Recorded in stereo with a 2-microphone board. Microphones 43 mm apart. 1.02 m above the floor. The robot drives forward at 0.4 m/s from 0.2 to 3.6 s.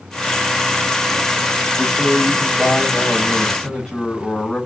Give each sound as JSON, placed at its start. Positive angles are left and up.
{"t": 1.8, "sound": "a man speaking", "side_deg": 25, "distance_m": 4.5}